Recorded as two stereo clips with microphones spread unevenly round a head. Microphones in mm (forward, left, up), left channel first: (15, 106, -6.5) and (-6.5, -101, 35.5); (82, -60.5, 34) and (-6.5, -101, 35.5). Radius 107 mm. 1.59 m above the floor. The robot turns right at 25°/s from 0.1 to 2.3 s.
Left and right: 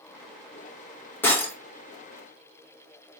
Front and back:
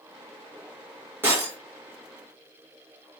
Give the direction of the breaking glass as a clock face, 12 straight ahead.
6 o'clock.